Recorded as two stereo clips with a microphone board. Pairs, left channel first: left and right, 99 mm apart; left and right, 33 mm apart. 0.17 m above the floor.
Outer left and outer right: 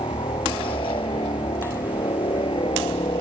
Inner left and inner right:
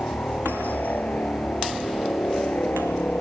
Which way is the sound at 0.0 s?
60° left (ahead or behind).